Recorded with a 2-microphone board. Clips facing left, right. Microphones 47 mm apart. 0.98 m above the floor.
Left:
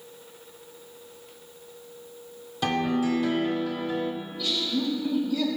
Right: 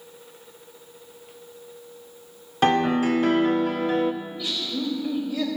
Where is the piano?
50° right (ahead or behind), 0.7 m.